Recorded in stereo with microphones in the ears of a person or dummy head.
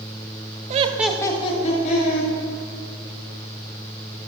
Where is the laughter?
40° right (ahead or behind), 0.5 m; by 2.3 s 50° left (ahead or behind), 1.5 m.